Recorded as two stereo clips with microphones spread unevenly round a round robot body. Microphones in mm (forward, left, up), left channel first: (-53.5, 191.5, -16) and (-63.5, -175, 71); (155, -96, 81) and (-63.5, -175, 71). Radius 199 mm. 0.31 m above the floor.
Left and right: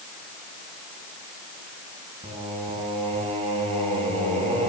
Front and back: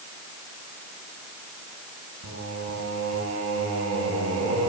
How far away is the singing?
About 4.5 m.